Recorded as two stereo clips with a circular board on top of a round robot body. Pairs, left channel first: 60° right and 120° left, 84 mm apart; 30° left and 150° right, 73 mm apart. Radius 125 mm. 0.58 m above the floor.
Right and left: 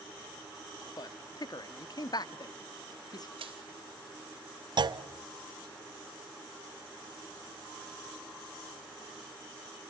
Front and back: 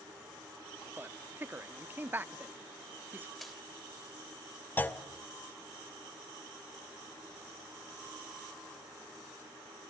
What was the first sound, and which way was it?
A man speaking, 90° right.